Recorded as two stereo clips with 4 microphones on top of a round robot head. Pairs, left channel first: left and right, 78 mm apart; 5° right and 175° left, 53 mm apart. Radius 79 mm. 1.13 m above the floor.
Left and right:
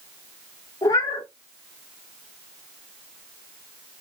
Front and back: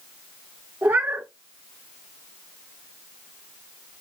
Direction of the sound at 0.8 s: 130° left.